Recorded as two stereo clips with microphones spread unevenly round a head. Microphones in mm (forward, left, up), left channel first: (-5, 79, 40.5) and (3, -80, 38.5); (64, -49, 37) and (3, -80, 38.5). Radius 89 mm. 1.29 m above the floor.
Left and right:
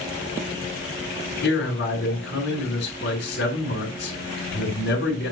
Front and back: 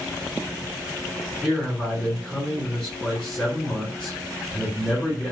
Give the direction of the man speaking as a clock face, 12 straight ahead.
8 o'clock.